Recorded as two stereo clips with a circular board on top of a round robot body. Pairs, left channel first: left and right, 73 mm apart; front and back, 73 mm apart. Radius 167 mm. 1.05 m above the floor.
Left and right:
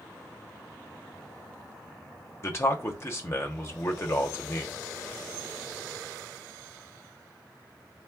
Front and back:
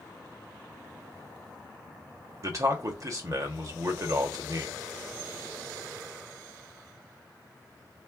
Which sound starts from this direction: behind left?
A man speaking, at 2.4 s.